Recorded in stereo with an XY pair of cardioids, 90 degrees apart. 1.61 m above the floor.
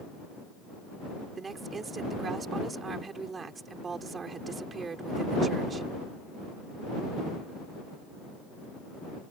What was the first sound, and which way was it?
A woman speaking, 45° right.